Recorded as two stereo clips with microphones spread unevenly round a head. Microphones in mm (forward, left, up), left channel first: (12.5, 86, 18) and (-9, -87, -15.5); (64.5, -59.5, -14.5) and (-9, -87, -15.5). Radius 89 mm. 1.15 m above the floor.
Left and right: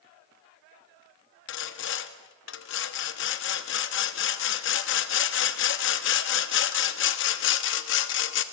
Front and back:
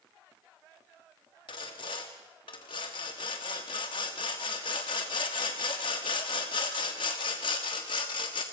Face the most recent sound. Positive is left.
turn(degrees=70)